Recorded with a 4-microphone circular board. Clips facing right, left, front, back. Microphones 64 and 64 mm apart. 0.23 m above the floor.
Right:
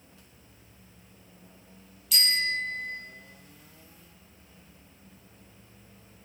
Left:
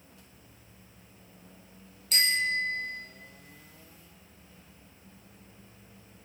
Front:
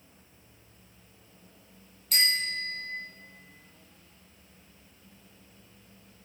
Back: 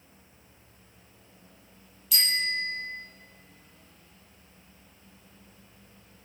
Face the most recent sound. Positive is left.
turn(degrees=40)